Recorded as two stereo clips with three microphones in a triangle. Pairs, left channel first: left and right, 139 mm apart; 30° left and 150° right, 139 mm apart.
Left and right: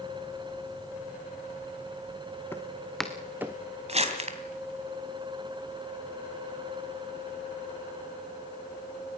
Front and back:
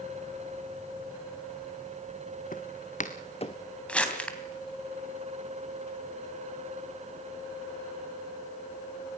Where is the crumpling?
50° right, 2.5 m.